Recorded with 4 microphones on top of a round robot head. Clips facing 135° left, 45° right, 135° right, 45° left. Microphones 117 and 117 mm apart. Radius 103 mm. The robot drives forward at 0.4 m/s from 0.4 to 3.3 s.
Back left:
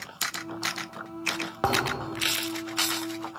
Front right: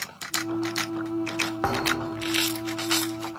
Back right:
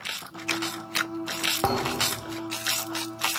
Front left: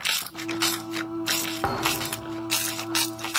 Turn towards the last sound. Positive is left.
turn(degrees=-175)